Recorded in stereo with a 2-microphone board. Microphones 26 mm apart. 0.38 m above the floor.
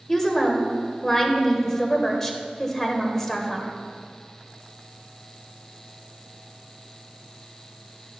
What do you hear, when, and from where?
0.1 s a woman speaking: 15° left (ahead or behind), 1.3 m